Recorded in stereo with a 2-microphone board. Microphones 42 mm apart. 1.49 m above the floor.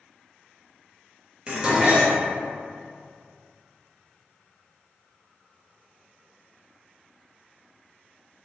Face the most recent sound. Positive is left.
turn(degrees=-25)  # may be behind; listen again after turning